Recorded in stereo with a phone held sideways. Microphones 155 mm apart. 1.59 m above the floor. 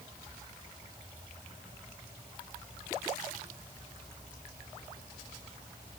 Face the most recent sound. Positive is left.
No sound to turn to.